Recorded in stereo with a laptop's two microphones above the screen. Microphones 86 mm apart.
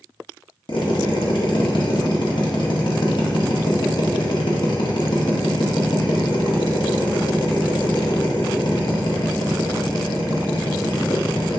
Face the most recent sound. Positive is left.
turn(degrees=65)  # may be behind; listen again after turning